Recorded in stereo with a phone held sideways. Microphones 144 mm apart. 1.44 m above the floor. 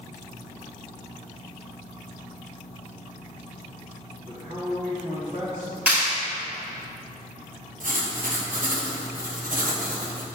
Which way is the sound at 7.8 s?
70° right (ahead or behind).